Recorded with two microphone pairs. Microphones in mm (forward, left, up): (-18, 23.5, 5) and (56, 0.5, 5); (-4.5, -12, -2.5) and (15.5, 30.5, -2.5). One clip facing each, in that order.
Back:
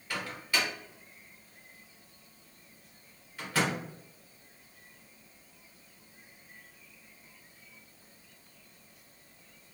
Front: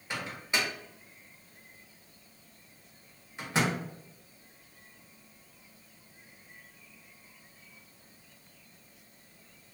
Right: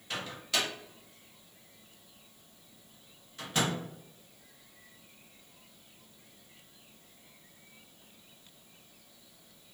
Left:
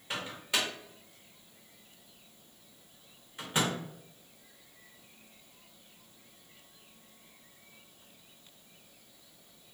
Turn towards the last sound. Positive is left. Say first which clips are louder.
# even, even
turn(degrees=15)